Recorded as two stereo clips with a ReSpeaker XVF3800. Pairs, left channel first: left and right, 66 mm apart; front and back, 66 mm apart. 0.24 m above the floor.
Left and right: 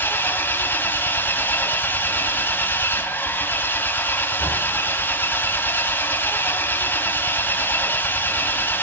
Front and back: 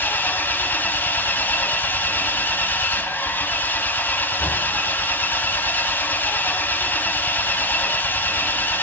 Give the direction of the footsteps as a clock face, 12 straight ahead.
I don't hear footsteps.